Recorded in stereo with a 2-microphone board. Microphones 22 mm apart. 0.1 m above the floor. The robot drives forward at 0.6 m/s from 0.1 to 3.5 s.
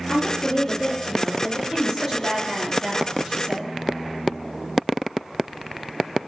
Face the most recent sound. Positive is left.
turn(degrees=-15)  # may be behind; listen again after turning